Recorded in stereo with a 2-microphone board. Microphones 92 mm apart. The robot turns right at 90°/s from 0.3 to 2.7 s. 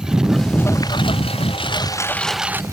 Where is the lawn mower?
5° right (ahead or behind); by 2.8 s 35° right (ahead or behind).